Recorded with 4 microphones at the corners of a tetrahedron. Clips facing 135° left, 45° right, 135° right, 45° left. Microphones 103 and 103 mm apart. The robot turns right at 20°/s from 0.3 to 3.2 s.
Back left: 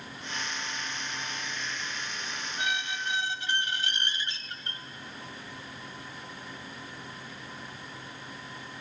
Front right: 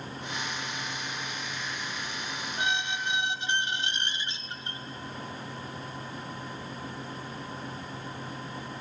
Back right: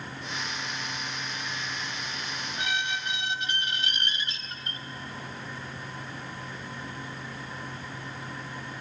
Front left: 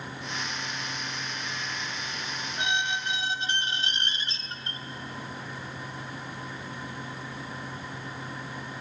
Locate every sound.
2.6 s a squeak: 5° right, 1.1 m; by 4.8 s 10° left, 1.1 m